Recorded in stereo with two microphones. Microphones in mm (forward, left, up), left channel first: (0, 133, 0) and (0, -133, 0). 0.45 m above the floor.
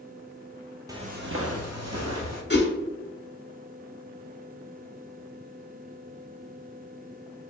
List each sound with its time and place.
0.9 s footsteps: 15° right (ahead or behind), 0.7 m; by 2.4 s 75° right (ahead or behind), 1.8 m
2.5 s a whoosh: 40° left (ahead or behind), 0.9 m